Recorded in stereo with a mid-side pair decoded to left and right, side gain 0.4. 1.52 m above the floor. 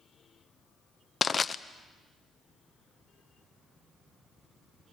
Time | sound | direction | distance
1.2 | crushing | 40° left | 0.8 m